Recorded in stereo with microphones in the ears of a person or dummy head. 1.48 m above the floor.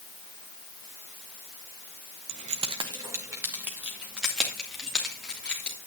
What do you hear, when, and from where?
2.3 s keys jangling: 40° right (ahead or behind), 0.9 m; by 5.8 s centre (ahead or behind), 3 m